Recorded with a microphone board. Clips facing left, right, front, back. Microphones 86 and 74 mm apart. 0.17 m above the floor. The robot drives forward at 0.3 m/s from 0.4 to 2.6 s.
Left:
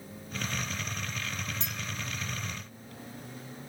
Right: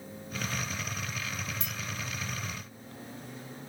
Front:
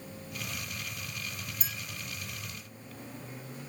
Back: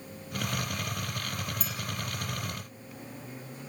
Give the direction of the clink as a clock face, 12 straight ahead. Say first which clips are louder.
Even, back 4 dB; 7 o'clock.